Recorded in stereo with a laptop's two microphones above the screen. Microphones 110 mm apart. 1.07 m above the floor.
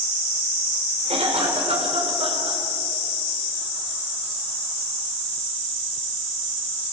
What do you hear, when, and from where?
1.1 s a cough: 70° right (ahead or behind), 5 m